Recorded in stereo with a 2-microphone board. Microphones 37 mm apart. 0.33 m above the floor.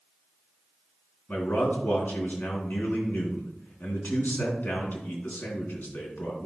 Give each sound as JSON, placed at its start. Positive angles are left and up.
{"t": 1.3, "sound": "a man speaking", "side_deg": 70, "distance_m": 3.0}